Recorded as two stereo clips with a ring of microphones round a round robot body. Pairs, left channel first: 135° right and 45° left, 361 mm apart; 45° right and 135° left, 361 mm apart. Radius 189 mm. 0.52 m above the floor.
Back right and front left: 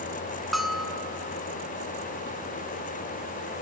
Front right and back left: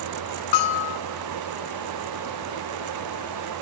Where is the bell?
45° right, 0.6 m.